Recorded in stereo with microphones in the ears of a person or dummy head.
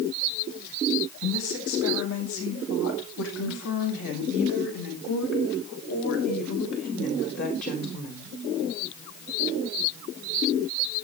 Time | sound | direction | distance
1.2 | a woman speaking | 85° left | 8 m